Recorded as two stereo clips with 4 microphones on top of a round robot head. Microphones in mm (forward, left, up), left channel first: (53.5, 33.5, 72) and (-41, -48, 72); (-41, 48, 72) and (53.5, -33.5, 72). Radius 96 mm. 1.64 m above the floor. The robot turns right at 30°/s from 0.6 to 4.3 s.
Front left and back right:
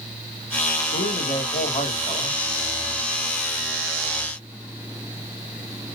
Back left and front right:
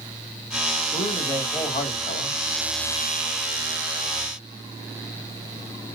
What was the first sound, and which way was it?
A man speaking, 70° left.